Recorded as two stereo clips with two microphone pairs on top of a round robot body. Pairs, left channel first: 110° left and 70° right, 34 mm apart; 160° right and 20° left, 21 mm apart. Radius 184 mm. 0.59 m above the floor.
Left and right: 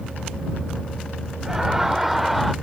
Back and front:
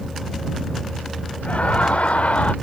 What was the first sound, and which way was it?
Laughter, 145° right.